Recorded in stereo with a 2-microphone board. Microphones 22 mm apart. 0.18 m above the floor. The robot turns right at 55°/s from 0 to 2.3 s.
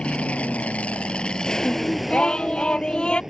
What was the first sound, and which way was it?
An aircraft, 55° left (ahead or behind).